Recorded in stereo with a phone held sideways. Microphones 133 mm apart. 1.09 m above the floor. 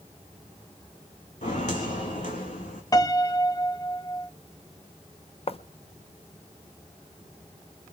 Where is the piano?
25° left (ahead or behind), 0.6 m.